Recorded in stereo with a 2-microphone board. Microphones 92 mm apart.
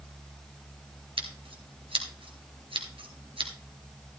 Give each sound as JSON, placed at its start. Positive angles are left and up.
{"t": 1.2, "sound": "scissors", "side_deg": -75, "distance_m": 1.7}